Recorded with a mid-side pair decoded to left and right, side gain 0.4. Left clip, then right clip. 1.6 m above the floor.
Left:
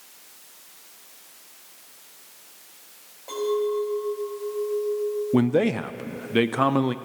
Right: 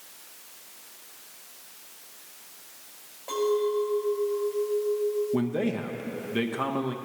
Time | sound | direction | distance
3.3 | a clink | straight ahead | 6 m
5.3 | a man speaking | 60° left | 0.7 m